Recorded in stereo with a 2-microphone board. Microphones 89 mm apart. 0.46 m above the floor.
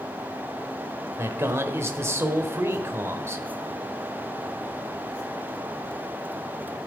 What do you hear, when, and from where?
1.2 s a man speaking: 30° right (ahead or behind), 1.4 m